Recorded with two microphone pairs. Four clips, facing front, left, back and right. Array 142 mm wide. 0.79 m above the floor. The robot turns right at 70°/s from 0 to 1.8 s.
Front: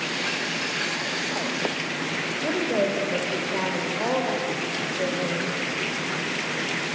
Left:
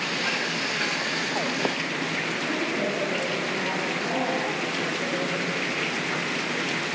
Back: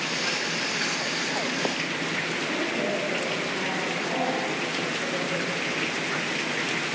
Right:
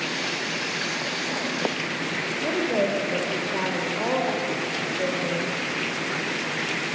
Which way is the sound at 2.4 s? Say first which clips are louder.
Right 6 dB, front 6 dB; 40° right.